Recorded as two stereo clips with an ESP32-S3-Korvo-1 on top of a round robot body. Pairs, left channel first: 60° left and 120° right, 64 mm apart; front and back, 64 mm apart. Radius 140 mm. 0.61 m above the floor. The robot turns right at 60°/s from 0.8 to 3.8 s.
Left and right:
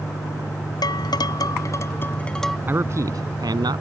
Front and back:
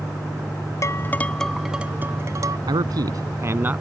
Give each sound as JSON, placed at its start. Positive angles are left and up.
{"t": 0.8, "sound": "dishes clattering", "azimuth_deg": 45}
{"t": 2.7, "sound": "a man speaking", "azimuth_deg": 180}